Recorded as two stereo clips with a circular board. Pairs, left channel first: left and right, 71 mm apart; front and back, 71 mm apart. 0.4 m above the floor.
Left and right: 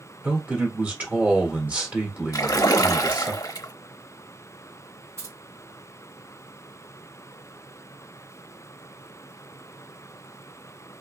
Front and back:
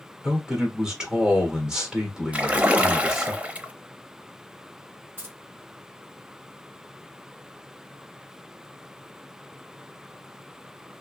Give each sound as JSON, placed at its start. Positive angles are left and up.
{"t": 0.2, "sound": "a man speaking", "azimuth_deg": -115, "distance_m": 1.4}
{"t": 2.3, "sound": "a splash", "azimuth_deg": 110, "distance_m": 0.6}
{"t": 5.2, "sound": "keys jangling", "azimuth_deg": -125, "distance_m": 2.0}